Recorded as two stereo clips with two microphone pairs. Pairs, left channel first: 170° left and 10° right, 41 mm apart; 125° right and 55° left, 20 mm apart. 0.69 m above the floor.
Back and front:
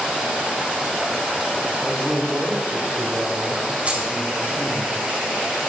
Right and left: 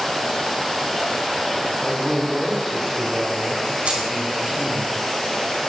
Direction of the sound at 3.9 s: 50° left.